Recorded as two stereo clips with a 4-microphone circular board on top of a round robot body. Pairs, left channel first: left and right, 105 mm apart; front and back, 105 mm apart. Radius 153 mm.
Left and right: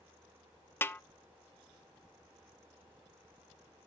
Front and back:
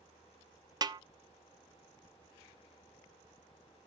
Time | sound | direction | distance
0.8 | a snare drum | 150° left | 0.6 m